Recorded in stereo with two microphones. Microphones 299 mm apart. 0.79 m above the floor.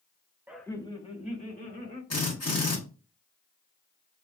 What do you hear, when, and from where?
0.5 s laughter: 5° right (ahead or behind), 0.5 m; by 2.0 s 30° left (ahead or behind), 2 m
2.1 s a drill: 55° left (ahead or behind), 1.6 m